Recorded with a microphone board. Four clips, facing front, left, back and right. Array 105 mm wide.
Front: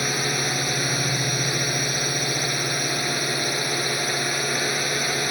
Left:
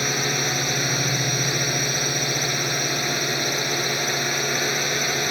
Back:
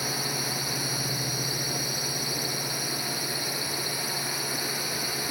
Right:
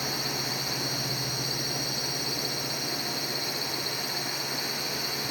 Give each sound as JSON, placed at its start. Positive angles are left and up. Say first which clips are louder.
{"t": 0.0, "sound": "a drone", "louder": "left 8 dB, front 6 dB", "azimuth_deg": 55}